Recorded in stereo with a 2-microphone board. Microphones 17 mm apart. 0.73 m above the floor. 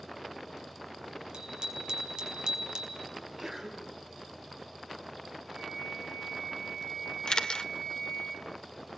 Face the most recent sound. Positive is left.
turn(degrees=60)  # may be behind; listen again after turning